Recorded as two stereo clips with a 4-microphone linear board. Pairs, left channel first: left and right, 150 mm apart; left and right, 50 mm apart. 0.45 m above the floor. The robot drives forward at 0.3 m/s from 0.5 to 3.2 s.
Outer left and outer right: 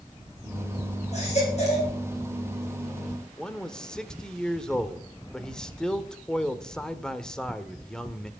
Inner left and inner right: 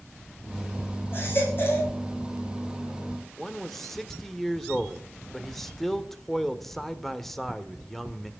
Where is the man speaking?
5° left (ahead or behind), 1.2 m.